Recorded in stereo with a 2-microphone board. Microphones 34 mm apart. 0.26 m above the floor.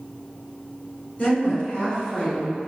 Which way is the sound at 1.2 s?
50° left (ahead or behind).